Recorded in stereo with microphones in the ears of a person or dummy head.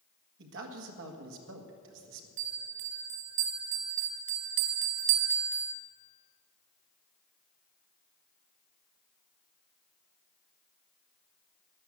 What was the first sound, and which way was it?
A man speaking, 65° right (ahead or behind).